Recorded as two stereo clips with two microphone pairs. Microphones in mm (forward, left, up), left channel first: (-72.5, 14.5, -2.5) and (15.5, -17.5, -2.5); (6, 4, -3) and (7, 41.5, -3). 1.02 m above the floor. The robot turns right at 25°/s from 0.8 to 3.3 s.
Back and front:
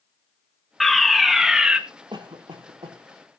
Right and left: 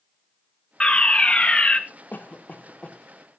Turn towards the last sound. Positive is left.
turn(degrees=-25)